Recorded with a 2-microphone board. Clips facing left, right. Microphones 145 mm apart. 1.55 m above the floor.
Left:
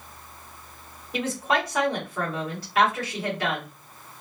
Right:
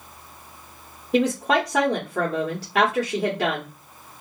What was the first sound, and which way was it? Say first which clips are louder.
A woman speaking: right 6 dB; 75° right (ahead or behind).